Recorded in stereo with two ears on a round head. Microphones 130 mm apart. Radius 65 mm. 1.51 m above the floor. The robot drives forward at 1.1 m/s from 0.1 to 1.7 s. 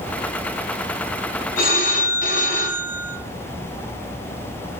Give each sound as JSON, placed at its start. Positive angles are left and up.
{"t": 1.6, "sound": "a phone ringing", "side_deg": 65, "distance_m": 1.0}